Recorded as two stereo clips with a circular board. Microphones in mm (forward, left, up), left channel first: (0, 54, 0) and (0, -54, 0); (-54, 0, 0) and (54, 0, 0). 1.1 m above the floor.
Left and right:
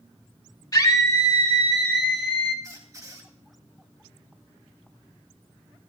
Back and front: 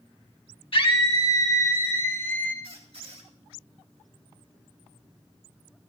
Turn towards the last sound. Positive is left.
turn(degrees=-30)